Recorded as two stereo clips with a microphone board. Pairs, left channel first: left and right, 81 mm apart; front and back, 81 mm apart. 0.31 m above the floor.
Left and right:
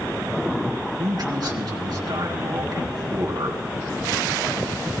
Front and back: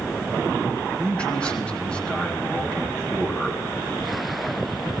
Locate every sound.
1.0 s a man speaking: 75° right, 4 m